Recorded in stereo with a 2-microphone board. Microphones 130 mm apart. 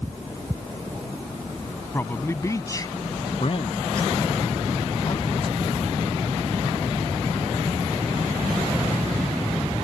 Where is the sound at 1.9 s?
15° left (ahead or behind); by 3.3 s 35° left (ahead or behind).